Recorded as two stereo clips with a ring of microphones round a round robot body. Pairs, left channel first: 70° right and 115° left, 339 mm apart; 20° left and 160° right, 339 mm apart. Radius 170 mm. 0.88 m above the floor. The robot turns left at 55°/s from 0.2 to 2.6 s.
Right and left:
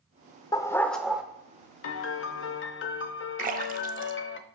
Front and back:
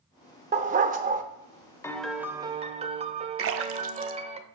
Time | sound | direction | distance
0.5 | a dog barking | 130° right | 0.5 m
1.8 | a piano | 55° right | 0.6 m
3.4 | a splash | 170° left | 0.6 m